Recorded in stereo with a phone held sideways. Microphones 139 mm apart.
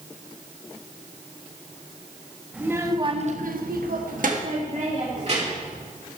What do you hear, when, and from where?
2.5 s a child speaking: 10° right (ahead or behind), 1.5 m; by 5.8 s 45° right (ahead or behind), 3.5 m